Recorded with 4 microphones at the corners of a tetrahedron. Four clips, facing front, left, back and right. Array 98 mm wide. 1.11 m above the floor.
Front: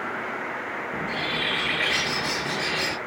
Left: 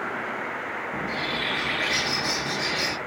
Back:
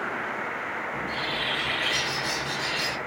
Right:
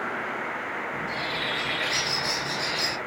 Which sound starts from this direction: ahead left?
A bird, at 0.9 s.